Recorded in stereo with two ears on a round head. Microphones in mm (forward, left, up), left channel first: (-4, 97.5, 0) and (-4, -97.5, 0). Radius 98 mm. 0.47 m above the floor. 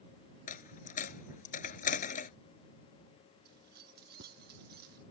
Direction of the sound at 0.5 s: 35° left (ahead or behind).